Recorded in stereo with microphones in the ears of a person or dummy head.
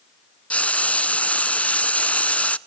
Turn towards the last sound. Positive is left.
turn(degrees=5)  # may be behind; listen again after turning